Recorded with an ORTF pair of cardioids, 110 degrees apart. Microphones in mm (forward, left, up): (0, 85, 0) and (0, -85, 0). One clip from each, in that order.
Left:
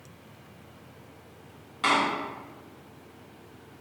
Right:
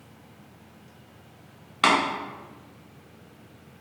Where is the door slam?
60° right, 1.5 m.